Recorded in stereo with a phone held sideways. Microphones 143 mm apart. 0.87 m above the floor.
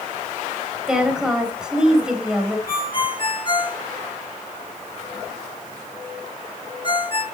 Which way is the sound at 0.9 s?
5° right (ahead or behind).